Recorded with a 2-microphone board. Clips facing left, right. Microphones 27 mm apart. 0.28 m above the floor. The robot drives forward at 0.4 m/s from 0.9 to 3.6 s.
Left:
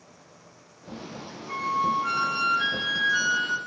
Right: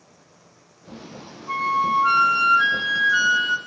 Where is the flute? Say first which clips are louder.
Right 5 dB; 30° right (ahead or behind), 0.7 m.